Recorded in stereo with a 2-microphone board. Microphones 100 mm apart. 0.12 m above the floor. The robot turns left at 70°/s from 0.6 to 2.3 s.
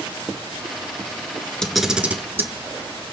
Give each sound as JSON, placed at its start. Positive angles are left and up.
{"t": 1.6, "sound": "a camera shutter", "side_deg": 5, "distance_m": 1.0}